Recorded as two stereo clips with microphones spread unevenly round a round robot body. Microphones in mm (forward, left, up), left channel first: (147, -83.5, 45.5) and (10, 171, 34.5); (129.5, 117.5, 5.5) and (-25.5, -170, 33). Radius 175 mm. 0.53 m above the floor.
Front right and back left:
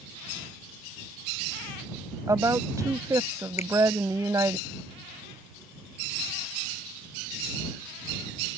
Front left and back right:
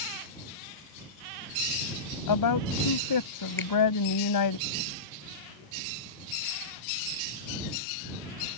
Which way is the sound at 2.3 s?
40° left.